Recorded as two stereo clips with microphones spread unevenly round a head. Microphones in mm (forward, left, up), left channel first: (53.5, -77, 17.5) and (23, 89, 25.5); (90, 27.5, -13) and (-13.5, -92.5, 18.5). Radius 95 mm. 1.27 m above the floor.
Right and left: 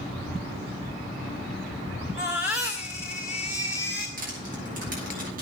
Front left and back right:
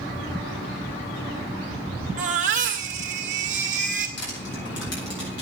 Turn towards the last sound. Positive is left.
turn(degrees=60)